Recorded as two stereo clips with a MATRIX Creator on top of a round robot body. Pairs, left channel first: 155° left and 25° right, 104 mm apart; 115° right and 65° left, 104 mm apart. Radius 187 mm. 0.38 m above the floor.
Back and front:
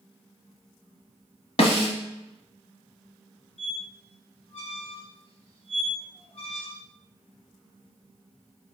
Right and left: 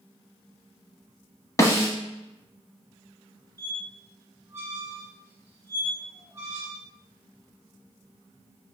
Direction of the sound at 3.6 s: 135° left.